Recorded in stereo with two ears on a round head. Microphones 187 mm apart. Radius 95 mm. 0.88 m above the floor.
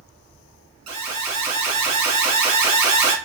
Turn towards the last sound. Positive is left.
turn(degrees=-30)  # may be behind; listen again after turning